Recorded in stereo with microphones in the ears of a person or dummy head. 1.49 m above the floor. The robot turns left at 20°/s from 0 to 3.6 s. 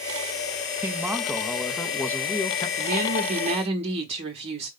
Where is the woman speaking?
50° right (ahead or behind), 0.7 m; by 4.7 s 30° right (ahead or behind), 0.7 m.